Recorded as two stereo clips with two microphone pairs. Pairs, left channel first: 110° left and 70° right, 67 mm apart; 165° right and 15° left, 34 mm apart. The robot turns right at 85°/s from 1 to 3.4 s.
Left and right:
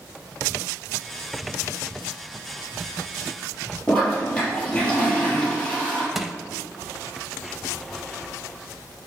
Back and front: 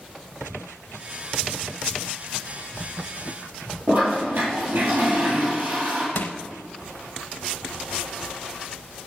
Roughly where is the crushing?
Behind right.